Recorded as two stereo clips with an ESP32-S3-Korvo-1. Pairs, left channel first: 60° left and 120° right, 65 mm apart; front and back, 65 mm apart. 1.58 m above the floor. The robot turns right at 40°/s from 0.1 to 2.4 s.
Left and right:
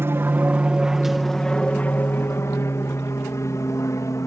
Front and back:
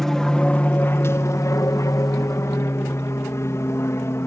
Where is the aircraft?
85° right; by 4.3 s 35° left.